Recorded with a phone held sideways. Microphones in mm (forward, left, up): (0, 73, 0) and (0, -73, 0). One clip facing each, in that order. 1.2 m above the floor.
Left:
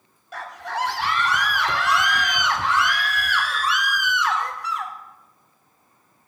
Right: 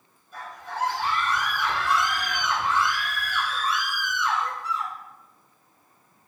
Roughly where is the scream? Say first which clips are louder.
Left 5 dB; left.